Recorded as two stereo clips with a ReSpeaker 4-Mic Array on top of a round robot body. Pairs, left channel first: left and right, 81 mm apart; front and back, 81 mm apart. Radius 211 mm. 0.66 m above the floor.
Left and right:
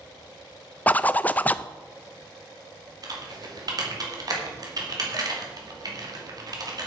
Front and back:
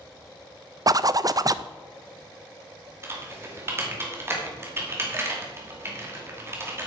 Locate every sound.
0.9 s a zipper: 155° left, 0.6 m
3.0 s typing on a keyboard: 120° right, 2.5 m